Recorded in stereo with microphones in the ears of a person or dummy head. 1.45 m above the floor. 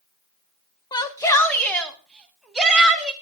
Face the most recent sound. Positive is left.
turn(degrees=-5)  # may be behind; listen again after turning